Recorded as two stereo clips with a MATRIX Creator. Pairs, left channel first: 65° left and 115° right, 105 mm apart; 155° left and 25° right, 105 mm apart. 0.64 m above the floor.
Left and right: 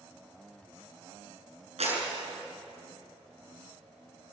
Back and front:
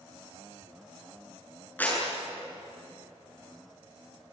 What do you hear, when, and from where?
1.8 s a clap: 130° right, 8 m